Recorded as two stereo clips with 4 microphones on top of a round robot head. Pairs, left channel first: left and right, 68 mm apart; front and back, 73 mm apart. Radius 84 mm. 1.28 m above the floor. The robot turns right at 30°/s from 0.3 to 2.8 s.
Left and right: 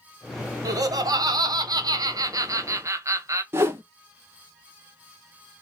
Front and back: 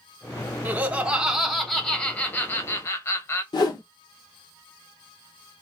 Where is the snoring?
No snoring in this recording.